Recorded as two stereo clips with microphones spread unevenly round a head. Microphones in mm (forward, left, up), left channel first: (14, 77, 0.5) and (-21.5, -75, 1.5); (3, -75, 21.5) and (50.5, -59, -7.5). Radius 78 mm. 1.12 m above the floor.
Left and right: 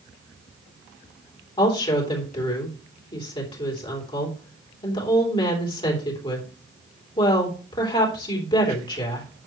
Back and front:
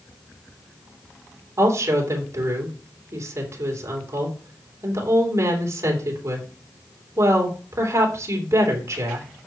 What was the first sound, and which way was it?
A woman speaking, 15° left.